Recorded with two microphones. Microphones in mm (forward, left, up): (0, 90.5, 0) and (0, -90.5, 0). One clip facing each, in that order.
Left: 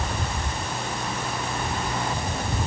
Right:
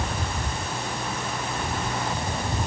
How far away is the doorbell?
I don't hear a doorbell.